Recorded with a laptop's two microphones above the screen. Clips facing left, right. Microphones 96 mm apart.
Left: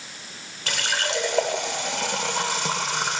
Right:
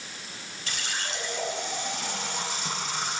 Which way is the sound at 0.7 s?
80° left.